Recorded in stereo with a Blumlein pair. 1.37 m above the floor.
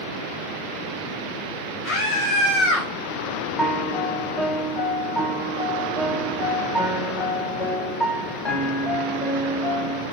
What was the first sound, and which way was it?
A scream, 25° left.